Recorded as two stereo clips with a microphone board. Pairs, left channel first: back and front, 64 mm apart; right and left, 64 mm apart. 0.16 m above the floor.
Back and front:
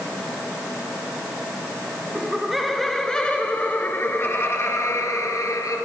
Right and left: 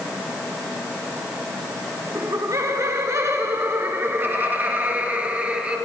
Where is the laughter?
80° left, 2 m; by 5.8 s 165° left, 3 m.